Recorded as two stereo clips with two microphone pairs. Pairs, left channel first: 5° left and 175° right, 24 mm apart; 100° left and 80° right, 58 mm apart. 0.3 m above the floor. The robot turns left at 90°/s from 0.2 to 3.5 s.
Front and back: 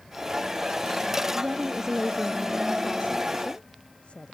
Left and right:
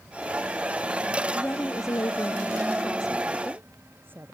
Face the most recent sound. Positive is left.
turn(degrees=-30)